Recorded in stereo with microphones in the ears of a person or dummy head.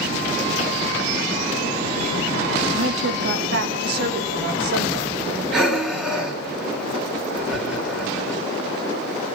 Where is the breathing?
Centre (ahead or behind), 3.5 m.